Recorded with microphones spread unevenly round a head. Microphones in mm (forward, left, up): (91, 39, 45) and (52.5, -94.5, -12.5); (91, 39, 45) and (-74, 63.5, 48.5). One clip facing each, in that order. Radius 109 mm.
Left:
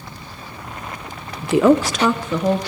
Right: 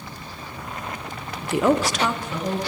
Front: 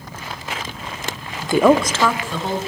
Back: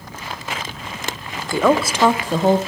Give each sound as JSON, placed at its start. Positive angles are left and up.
{"t": 1.4, "sound": "a woman speaking", "azimuth_deg": 55, "distance_m": 0.8}